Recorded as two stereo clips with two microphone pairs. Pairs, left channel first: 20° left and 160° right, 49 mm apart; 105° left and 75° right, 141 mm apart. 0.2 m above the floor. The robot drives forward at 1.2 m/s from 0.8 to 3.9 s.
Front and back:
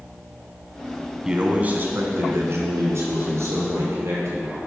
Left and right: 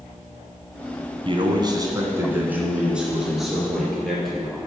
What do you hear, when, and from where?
1.2 s a man speaking: 90° right, 1.4 m; by 4.6 s 165° right, 3.5 m